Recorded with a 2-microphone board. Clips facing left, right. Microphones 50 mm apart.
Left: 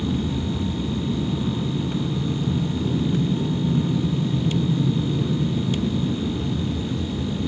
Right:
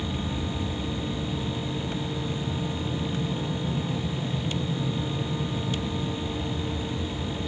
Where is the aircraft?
50° left (ahead or behind); by 7.5 s 55° left (ahead or behind).